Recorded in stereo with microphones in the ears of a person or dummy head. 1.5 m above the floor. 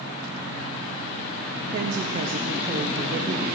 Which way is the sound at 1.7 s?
45° right (ahead or behind).